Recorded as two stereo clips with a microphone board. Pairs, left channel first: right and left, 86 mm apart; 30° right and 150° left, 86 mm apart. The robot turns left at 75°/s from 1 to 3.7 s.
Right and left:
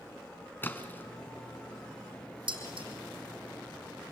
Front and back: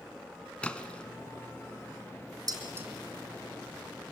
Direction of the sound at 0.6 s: 85° right.